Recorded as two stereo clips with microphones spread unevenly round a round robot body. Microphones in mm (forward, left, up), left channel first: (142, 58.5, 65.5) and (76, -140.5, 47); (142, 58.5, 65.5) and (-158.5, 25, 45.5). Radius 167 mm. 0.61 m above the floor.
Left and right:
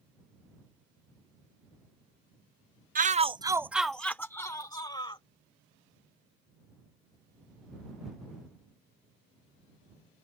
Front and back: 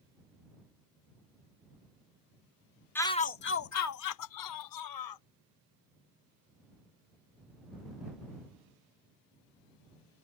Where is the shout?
80° right; by 5.2 s 5° left.